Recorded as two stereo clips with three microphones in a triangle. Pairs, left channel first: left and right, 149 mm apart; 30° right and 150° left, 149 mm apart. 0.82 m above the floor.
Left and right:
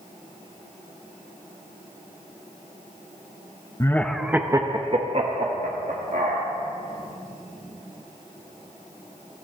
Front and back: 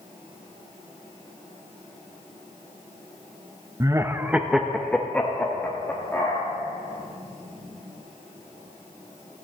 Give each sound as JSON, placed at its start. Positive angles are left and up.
{"t": 3.8, "sound": "laughter", "azimuth_deg": 125, "distance_m": 0.7}